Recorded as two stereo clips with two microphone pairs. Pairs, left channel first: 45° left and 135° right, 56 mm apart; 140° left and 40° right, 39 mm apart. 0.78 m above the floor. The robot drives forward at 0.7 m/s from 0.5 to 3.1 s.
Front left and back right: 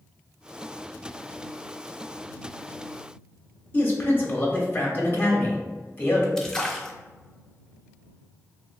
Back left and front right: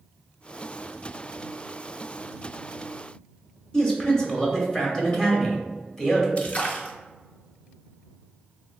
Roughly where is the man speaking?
Left.